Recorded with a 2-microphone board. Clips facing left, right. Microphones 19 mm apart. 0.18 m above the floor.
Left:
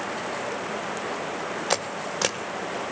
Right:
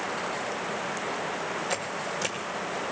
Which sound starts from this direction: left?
A camera shutter, at 1.7 s.